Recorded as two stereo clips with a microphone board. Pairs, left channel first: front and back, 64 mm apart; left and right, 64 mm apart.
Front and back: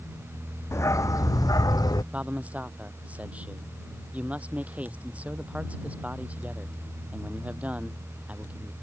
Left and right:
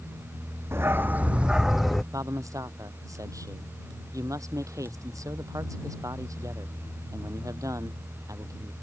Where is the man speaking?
115° right.